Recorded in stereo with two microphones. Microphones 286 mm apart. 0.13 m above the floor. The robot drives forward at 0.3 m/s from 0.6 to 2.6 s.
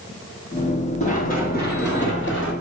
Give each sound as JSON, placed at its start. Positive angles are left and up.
{"t": 1.0, "sound": "running footsteps", "side_deg": 25, "distance_m": 3.0}